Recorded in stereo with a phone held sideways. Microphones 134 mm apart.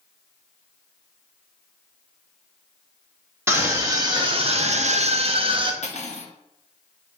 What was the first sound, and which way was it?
A scream, 15° right (ahead or behind).